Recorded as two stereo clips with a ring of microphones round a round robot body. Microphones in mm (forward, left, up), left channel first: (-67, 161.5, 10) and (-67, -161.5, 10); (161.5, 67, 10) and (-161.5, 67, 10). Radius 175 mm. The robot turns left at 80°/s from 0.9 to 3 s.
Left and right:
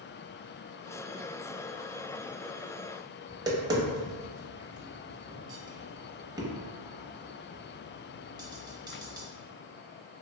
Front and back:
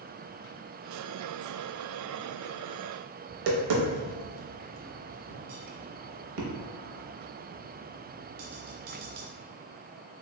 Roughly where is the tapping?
Behind.